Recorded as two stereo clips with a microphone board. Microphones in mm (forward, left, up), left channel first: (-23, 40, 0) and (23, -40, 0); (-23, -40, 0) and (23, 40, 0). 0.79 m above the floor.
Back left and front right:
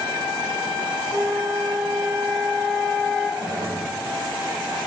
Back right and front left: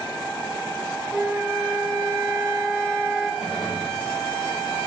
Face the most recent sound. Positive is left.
turn(degrees=-30)